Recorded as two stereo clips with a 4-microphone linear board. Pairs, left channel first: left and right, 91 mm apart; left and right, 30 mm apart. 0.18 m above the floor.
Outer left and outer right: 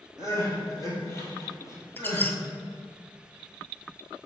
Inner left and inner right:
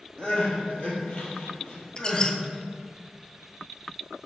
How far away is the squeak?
About 0.5 m.